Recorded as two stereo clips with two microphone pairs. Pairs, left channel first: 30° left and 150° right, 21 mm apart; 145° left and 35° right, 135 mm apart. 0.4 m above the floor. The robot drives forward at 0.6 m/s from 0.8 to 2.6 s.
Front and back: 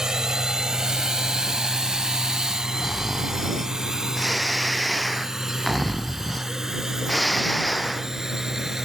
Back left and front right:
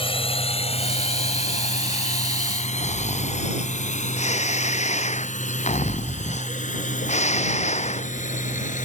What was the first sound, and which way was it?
A drone, 165° left.